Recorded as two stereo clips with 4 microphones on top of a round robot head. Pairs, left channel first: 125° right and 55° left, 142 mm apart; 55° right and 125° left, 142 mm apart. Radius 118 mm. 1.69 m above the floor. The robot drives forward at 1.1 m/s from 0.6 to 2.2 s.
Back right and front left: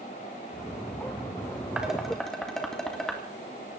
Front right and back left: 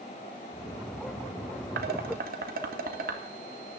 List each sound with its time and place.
1.8 s dishes clattering: 140° left, 1.7 m; by 3.2 s 150° left, 2 m